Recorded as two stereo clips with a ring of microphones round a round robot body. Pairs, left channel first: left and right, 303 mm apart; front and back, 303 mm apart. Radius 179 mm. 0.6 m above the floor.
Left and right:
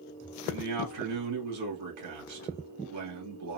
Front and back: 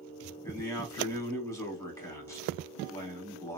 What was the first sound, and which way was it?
A man speaking, 80° right.